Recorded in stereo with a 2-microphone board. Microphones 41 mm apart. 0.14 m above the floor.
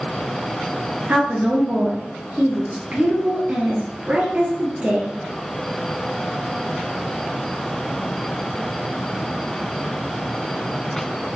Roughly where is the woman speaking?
Right.